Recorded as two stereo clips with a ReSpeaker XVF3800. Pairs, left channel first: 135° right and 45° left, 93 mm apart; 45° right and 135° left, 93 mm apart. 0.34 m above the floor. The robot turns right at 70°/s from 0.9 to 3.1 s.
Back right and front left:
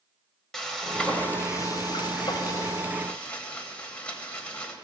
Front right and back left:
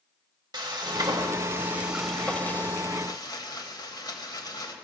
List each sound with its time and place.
0.5 s frying: 140° left, 1.0 m; by 4.8 s 65° right, 1.0 m